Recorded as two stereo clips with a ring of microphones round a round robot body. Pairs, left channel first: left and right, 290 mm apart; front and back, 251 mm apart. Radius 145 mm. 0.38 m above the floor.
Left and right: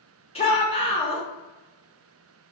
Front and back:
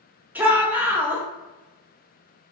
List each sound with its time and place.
0.3 s a shout: 110° left, 0.9 m